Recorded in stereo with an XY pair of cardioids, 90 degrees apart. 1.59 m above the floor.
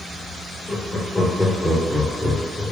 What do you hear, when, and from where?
0.7 s laughter: 20° left, 1.6 m; by 2.7 s 5° right, 0.7 m